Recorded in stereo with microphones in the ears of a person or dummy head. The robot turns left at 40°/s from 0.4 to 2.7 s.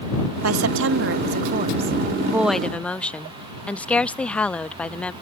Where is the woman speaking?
100° right; by 5.1 s 170° left.